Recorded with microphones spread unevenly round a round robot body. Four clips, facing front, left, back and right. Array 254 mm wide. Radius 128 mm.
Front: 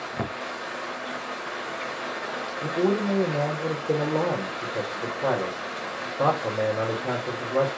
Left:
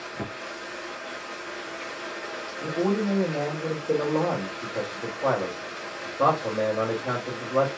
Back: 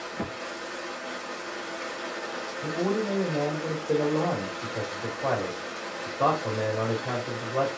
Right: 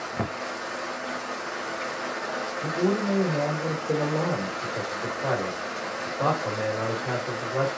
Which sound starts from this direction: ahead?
A man speaking, at 2.6 s.